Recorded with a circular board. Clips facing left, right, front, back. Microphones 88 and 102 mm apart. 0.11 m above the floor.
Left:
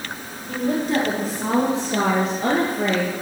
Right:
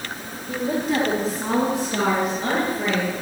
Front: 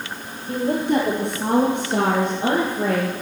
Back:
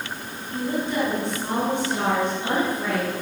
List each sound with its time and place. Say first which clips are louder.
0.5 s a woman speaking: left 1 dB, front 6 dB; 5° right, 2.5 m; by 3.1 s 45° left, 3.5 m